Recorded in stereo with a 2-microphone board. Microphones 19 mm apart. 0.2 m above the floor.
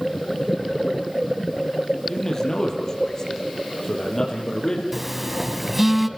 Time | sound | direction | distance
2.1 | a man speaking | 30° left (ahead or behind) | 6 m
4.9 | a phone buzzing | 15° right (ahead or behind) | 1.4 m